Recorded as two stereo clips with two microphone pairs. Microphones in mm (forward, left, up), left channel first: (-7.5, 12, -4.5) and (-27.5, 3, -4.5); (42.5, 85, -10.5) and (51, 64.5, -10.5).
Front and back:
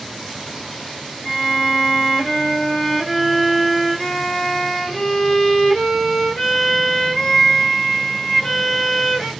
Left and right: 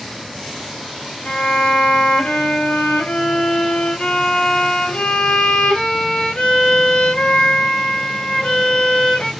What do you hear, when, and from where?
1.2 s a violin: 105° left, 2.5 m